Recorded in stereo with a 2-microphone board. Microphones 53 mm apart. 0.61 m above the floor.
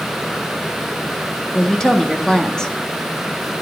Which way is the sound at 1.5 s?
10° left (ahead or behind).